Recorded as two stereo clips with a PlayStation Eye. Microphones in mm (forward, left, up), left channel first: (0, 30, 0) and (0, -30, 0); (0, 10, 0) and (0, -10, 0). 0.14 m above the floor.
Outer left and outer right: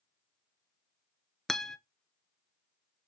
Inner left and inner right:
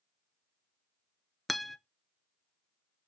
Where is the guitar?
5° left (ahead or behind), 0.6 m.